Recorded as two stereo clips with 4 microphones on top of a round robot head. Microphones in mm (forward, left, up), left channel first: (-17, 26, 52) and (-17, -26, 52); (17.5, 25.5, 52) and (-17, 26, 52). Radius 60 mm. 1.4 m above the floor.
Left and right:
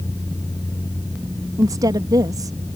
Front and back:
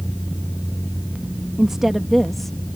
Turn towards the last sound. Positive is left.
turn(degrees=-85)